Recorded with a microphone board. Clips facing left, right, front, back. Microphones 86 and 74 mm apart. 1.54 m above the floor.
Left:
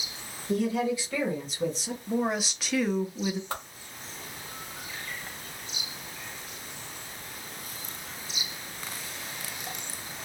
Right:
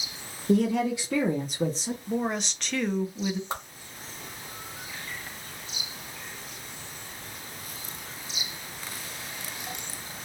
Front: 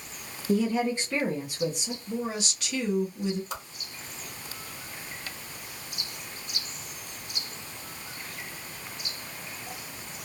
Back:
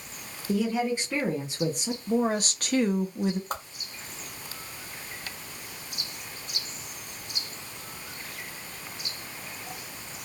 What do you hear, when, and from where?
0.5 s a woman speaking: 80° right, 1.3 m; by 2.0 s 160° right, 0.8 m
2.1 s a woman speaking: 175° left, 0.6 m
3.5 s a whoosh: 155° right, 0.9 m